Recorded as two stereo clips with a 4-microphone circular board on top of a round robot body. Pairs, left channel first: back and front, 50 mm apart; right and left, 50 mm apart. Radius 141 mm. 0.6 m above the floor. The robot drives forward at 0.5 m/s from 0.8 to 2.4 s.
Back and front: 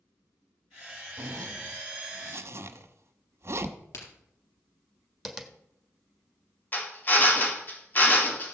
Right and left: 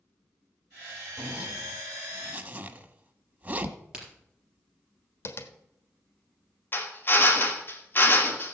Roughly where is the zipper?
Ahead.